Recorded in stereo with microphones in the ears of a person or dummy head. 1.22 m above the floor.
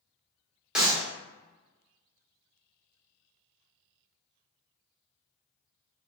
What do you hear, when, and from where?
0.8 s a clap: 5° right (ahead or behind), 0.7 m